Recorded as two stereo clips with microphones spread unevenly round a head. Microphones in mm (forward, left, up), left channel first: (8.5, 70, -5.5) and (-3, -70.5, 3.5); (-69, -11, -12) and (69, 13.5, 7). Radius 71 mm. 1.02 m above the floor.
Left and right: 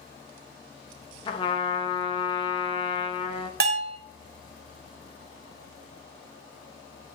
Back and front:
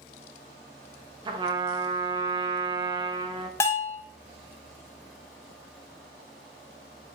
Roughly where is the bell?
Right.